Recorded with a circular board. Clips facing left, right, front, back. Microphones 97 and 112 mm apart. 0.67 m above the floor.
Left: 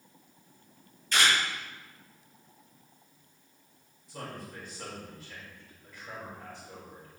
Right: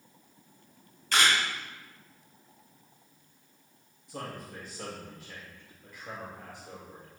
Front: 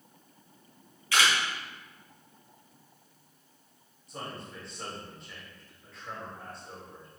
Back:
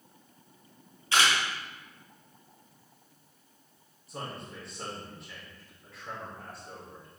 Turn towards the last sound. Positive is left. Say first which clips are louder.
# right 1 dB, back 1 dB
turn(degrees=-90)